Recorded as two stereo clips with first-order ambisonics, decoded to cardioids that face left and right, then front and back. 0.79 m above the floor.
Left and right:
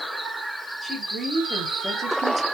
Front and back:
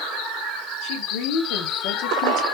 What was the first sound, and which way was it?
A woman speaking, straight ahead.